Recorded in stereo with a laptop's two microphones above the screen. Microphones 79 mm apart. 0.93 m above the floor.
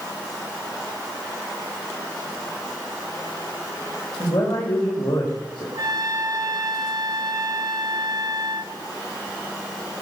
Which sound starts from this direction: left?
A man speaking, at 4.2 s.